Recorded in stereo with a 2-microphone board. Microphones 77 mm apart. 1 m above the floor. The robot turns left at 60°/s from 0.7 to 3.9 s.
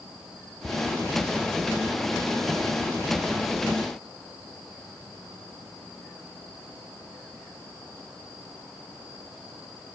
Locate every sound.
0.6 s ticking: 35° left (ahead or behind), 0.9 m